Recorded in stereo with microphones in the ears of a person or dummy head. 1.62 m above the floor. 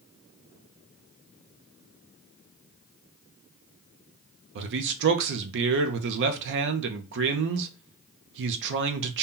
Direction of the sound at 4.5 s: 65° right (ahead or behind).